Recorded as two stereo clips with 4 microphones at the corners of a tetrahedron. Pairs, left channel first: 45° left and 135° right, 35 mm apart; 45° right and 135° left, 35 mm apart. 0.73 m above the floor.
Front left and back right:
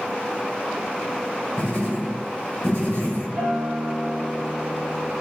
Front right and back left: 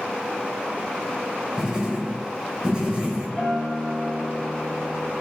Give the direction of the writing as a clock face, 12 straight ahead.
10 o'clock.